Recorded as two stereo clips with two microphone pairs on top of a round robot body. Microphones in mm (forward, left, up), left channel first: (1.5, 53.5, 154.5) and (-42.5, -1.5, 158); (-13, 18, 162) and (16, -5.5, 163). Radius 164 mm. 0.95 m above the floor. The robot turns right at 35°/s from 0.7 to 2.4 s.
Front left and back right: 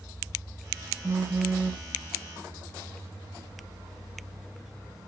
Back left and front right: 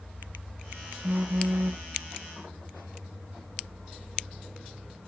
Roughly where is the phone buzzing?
Right.